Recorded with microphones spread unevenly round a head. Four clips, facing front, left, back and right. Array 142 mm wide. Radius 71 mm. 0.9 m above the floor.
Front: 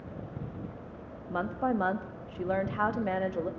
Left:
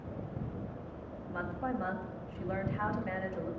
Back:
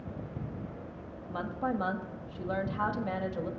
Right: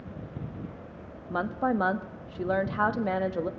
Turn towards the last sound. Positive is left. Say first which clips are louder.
# right 9 dB, front 3 dB
turn(degrees=-65)